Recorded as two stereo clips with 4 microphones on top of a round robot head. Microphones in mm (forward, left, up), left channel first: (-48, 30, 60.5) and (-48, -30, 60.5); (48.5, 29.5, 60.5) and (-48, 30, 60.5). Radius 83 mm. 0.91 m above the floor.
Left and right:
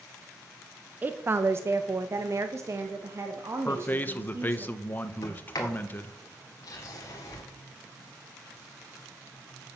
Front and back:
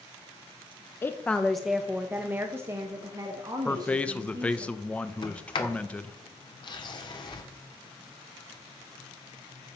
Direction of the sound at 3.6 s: 65° left.